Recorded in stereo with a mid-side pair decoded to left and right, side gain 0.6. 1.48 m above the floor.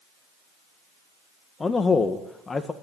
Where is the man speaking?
20° left, 1.6 m.